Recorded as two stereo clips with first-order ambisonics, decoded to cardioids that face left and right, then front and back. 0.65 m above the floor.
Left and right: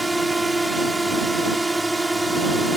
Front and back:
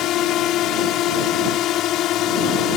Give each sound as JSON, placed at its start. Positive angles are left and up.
{"t": 0.0, "sound": "a drone", "azimuth_deg": -10}